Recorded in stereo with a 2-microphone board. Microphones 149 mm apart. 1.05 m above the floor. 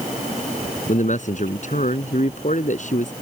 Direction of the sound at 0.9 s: 60° left (ahead or behind).